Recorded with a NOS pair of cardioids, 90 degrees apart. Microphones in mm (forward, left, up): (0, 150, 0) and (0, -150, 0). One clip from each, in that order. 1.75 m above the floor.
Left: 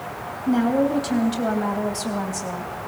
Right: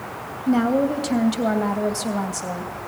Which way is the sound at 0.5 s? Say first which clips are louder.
Right 1 dB; 15° right.